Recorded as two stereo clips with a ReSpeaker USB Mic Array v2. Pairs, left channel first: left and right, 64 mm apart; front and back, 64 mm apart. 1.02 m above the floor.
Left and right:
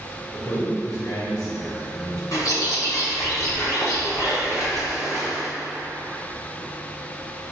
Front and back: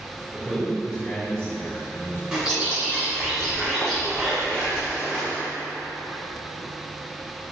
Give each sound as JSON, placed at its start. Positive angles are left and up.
{"t": 0.3, "sound": "a man speaking", "azimuth_deg": 115, "distance_m": 1.2}
{"t": 2.3, "sound": "a bird", "azimuth_deg": 105, "distance_m": 1.5}